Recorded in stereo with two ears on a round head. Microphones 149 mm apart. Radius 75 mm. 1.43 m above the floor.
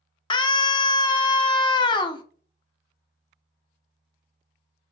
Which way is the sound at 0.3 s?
30° left (ahead or behind).